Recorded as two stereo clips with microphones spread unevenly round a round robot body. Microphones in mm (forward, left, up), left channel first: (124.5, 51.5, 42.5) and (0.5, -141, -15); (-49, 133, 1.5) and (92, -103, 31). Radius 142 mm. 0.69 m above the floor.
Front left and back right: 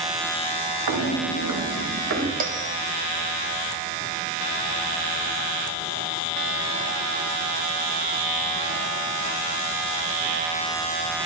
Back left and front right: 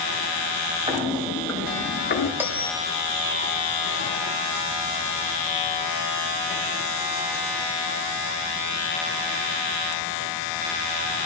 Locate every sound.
0.9 s footsteps: 130° right, 2.5 m; by 2.3 s straight behind, 3 m
2.4 s a bell: 145° right, 1.5 m